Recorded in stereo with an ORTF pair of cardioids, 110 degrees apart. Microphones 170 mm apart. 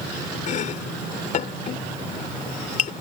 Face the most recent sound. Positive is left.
turn(degrees=50)